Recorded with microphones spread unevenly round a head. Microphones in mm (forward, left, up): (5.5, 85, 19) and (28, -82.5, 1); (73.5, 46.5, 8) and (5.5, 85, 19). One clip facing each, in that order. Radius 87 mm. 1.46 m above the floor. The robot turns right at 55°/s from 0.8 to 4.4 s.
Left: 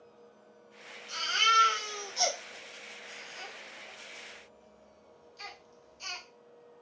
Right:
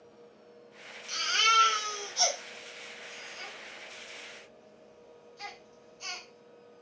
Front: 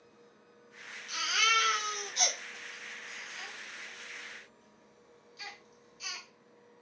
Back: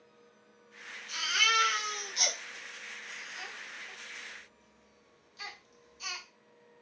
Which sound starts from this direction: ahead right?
A baby crying, at 1.1 s.